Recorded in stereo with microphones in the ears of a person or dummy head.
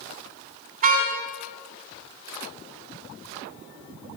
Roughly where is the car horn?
Right.